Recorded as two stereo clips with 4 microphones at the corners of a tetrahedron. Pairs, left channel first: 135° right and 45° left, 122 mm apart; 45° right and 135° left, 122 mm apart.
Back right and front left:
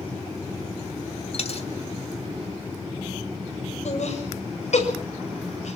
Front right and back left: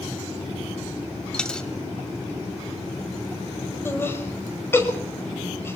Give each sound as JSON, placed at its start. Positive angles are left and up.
{"t": 1.3, "sound": "a dropped coin", "azimuth_deg": -125, "distance_m": 1.9}
{"t": 3.9, "sound": "laughter", "azimuth_deg": -115, "distance_m": 6.0}